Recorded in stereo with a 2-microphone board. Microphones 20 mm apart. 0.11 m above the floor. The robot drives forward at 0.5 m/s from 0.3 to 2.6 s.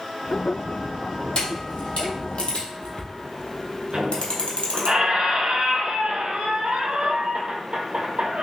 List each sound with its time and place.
1.4 s a camera shutter: 45° left (ahead or behind), 2.0 m; by 4.9 s 60° left (ahead or behind), 1.7 m
3.9 s a squeak: 55° right (ahead or behind), 0.9 m